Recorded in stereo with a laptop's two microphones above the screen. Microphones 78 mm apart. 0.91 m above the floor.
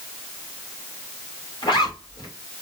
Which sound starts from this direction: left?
A zipper, at 1.6 s.